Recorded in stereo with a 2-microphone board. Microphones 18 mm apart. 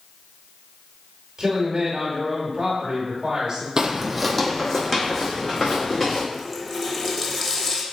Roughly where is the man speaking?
Right.